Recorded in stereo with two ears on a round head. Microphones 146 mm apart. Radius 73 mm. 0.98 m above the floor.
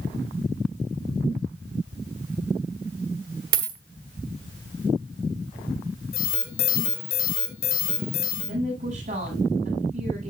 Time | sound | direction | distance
3.5 | a dropped coin | 60° right (ahead or behind) | 1.4 m
6.1 | an alarm | 60° left (ahead or behind) | 3 m
8.5 | a woman speaking | 55° right (ahead or behind) | 7.5 m